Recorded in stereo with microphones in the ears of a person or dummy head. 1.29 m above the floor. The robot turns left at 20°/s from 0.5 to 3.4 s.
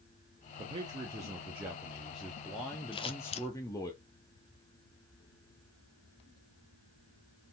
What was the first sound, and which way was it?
A man speaking, 140° right.